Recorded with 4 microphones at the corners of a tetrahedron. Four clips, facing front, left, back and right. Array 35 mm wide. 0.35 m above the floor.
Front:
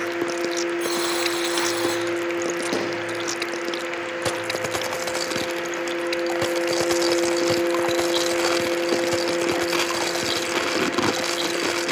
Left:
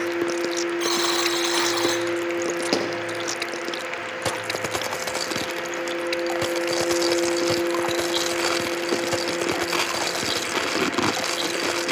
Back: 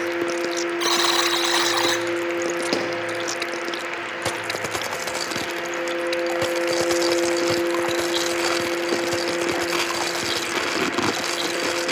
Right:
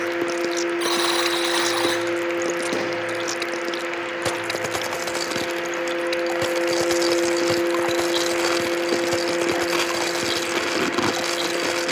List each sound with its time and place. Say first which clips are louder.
0.8 s a buzzer: right 1 dB, back 3 dB; 160° right, 1.8 m
2.7 s a pop: left 1 dB, back 2 dB; 130° left, 3 m